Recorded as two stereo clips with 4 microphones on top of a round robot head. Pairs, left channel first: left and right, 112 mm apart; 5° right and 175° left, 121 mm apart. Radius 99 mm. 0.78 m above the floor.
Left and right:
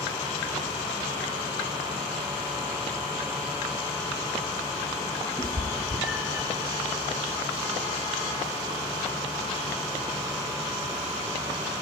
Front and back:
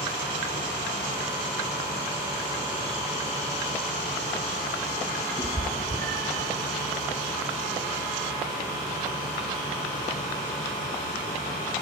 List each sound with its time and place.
5.4 s a cat meowing: 135° right, 0.8 m; by 6.5 s 170° right, 1.1 m